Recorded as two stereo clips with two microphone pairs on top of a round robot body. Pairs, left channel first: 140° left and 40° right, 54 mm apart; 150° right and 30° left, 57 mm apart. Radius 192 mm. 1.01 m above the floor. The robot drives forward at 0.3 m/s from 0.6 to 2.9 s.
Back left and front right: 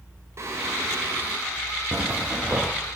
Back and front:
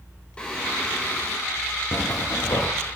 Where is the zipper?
100° right, 0.6 m; by 2.7 s 120° right, 0.6 m.